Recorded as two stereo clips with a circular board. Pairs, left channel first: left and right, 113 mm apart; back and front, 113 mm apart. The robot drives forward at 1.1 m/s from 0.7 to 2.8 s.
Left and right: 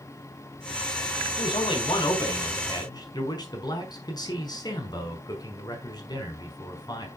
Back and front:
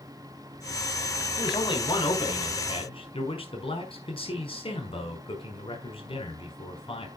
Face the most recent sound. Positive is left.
turn(degrees=145)